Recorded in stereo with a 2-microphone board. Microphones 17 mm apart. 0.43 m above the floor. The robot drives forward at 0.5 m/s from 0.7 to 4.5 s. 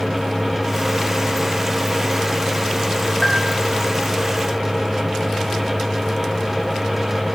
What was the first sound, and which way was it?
A bell, 50° left (ahead or behind).